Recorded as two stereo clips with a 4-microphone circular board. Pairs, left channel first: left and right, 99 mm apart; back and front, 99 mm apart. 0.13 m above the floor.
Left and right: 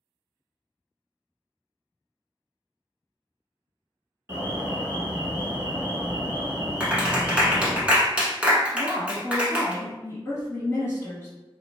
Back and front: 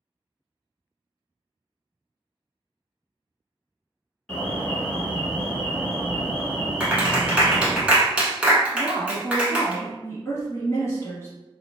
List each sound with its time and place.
4.3 s an alarm: 110° right, 1.2 m
6.8 s a clap: 45° right, 0.8 m
8.7 s a woman speaking: 140° left, 1.5 m